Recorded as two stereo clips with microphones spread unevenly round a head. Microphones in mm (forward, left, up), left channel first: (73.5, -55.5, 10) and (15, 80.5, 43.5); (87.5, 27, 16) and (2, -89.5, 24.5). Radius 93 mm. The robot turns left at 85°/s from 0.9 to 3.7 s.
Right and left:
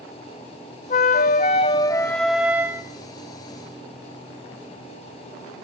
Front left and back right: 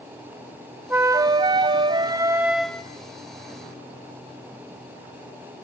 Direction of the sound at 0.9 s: 65° right.